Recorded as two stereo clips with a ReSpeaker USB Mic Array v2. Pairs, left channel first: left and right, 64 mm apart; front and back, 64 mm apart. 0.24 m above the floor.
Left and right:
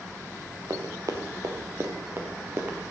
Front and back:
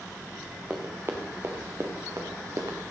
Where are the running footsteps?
120° right, 1.9 m; by 2.8 s 145° right, 2.5 m.